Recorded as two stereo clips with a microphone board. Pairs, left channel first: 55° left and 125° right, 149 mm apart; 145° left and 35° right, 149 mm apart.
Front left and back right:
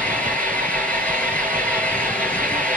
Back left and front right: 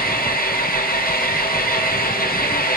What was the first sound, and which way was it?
An engine running, 135° left.